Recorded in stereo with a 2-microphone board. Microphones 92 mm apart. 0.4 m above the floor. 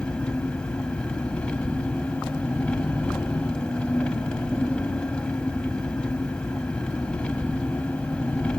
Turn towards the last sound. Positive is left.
turn(degrees=10)  # may be behind; listen again after turning